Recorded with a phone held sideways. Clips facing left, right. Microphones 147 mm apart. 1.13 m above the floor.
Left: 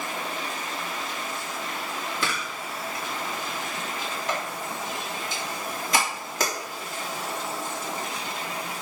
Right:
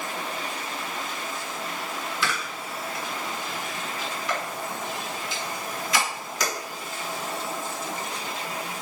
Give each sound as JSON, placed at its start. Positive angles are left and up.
{"t": 2.2, "sound": "a camera shutter", "side_deg": 50, "distance_m": 3.0}